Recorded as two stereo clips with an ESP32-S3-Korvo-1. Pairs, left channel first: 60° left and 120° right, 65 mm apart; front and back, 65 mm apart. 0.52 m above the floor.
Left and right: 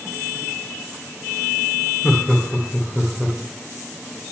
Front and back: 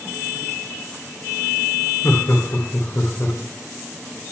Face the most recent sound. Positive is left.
turn(degrees=-45)